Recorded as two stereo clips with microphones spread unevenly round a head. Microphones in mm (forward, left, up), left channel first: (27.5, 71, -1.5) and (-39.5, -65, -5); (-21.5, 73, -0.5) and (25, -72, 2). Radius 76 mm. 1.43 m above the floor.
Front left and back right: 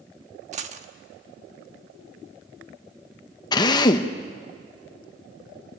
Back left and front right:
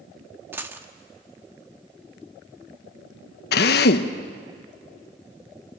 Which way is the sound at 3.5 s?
125° left.